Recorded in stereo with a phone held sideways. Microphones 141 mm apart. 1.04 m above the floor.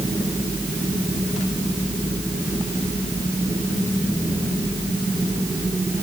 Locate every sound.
Only background noise.